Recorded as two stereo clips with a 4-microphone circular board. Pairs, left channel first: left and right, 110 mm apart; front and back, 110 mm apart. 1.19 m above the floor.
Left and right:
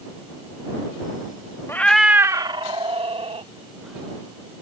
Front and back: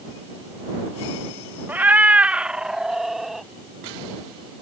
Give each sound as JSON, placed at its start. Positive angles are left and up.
{"t": 1.7, "sound": "a cat meowing", "azimuth_deg": 125}